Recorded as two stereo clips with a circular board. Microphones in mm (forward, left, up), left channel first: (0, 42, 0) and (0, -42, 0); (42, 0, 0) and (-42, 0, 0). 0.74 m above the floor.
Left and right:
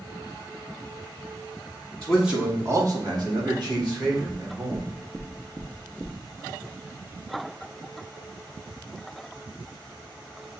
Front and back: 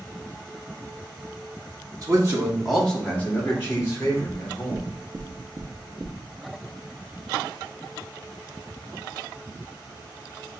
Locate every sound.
2.0 s a man speaking: 170° left, 1.2 m; by 4.9 s 55° right, 4 m
4.3 s knocking: 145° right, 0.9 m